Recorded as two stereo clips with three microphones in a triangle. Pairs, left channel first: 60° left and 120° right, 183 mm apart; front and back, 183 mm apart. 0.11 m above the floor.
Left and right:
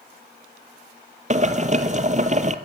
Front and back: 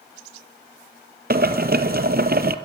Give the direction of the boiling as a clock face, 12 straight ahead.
5 o'clock.